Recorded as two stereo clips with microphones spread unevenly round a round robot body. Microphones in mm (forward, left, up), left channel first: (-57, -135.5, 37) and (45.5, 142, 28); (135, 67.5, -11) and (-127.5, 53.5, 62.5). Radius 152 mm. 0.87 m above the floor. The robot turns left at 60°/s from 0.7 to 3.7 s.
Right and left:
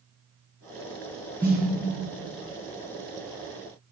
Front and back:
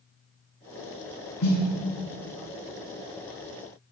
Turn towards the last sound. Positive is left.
turn(degrees=-165)